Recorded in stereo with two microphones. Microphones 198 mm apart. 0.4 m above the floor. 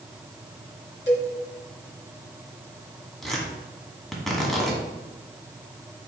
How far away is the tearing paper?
About 1.6 m.